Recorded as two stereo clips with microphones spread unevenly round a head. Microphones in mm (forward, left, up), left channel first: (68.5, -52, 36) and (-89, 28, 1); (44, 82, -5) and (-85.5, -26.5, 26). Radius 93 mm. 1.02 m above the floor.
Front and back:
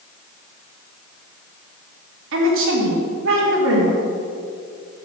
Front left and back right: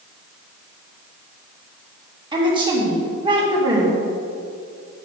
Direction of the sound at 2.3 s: 155° left.